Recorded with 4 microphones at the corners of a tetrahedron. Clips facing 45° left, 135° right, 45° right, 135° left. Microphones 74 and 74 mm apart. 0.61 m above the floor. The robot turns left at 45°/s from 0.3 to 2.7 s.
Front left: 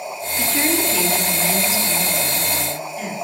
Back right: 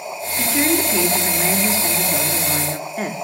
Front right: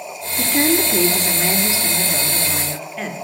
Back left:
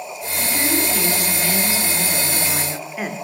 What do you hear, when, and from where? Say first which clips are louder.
0.4 s a woman speaking: back right 2 dB, front right 4 dB; 45° right, 1.9 m; by 3.2 s 150° right, 1.9 m